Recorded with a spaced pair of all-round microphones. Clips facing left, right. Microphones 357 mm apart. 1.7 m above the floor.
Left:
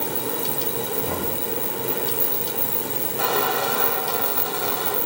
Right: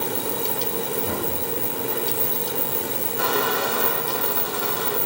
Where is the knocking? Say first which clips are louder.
Even; 25° right (ahead or behind), 8.5 m.